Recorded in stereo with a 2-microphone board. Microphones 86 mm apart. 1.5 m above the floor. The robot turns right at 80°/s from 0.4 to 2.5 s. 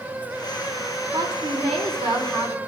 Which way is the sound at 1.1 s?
140° right.